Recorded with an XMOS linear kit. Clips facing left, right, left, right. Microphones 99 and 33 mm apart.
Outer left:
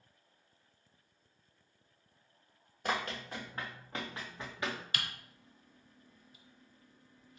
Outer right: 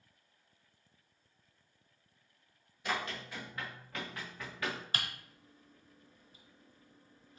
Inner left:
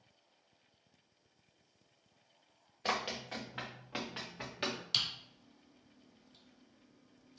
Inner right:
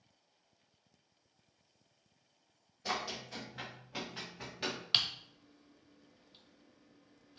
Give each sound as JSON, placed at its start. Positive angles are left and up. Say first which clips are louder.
{"t": 2.9, "sound": "running footsteps", "louder": "outer left 2 dB, inner left 2 dB", "side_deg": 45, "distance_m": 2.5}
{"t": 4.9, "sound": "typing on a keyboard", "louder": "outer right 1 dB, inner right 5 dB", "side_deg": -35, "distance_m": 1.1}